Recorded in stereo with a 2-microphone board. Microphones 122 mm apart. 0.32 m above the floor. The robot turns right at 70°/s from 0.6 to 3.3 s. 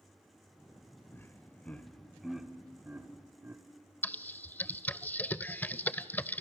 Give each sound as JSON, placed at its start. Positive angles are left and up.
{"t": 1.1, "sound": "laughter", "side_deg": 20, "distance_m": 0.8}
{"t": 4.0, "sound": "typing on a keyboard", "side_deg": 15, "distance_m": 0.5}